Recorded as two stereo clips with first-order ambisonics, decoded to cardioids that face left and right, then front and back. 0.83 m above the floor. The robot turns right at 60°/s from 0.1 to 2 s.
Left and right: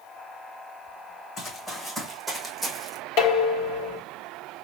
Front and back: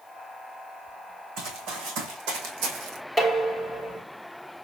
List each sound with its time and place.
1.4 s running footsteps: 145° left, 2.5 m; by 3.0 s straight behind, 1.7 m
3.2 s dishes clattering: 110° left, 1.1 m